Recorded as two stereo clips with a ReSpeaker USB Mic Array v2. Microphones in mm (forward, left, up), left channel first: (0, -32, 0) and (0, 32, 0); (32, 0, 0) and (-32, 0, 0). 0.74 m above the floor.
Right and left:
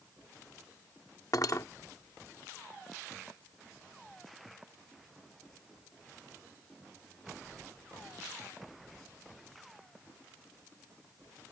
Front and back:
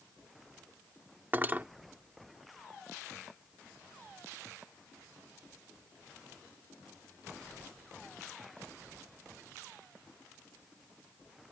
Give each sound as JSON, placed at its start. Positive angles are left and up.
{"t": 1.3, "sound": "cutlery clinking", "azimuth_deg": -120}